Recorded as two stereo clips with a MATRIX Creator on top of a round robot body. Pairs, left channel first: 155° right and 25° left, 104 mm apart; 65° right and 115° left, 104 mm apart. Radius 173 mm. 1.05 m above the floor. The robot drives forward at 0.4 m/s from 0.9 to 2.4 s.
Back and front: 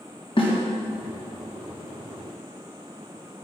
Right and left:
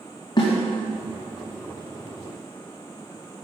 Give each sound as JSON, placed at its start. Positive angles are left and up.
{"t": 0.4, "sound": "a snare drum", "azimuth_deg": -120, "distance_m": 2.5}